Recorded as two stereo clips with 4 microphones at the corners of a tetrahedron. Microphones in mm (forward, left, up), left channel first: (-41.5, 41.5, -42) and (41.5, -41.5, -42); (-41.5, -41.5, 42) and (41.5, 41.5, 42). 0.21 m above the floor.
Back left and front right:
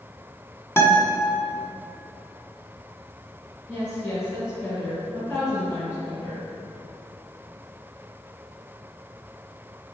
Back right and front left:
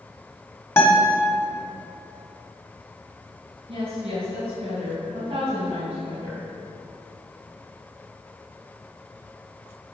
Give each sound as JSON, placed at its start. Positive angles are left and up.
{"t": 0.8, "sound": "a guitar", "azimuth_deg": 180, "distance_m": 1.2}
{"t": 3.7, "sound": "a woman speaking", "azimuth_deg": 55, "distance_m": 2.5}